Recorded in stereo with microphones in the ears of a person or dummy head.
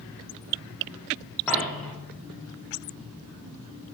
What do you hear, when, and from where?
1.5 s a dropped coin: 10° left (ahead or behind), 0.8 m